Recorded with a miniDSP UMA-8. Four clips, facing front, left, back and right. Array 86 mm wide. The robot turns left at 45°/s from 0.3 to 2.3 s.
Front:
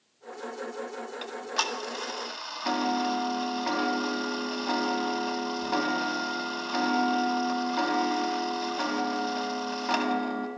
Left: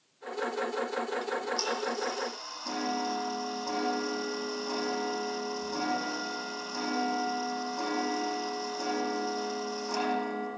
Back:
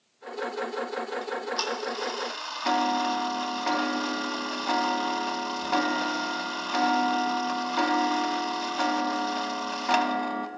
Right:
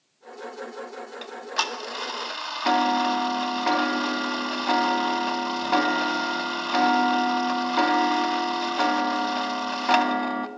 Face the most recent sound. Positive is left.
turn(degrees=-100)